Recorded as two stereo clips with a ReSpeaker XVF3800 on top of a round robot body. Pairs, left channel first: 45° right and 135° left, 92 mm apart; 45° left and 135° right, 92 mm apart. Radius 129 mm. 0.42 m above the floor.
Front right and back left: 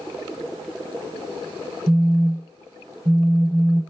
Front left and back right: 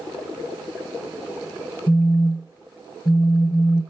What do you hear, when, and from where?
1.9 s a phone buzzing: 90° left, 1.0 m